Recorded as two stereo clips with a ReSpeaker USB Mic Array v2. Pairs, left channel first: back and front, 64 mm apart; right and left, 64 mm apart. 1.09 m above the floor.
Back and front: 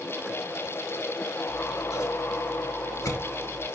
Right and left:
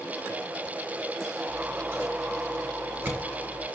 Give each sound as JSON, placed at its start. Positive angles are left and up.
{"t": 1.5, "sound": "scissors", "azimuth_deg": 155, "distance_m": 2.5}